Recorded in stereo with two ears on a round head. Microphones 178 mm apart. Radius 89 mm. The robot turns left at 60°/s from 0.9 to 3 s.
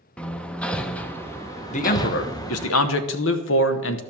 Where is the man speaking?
145° left, 1.0 m; by 4.0 s 65° left, 1.0 m.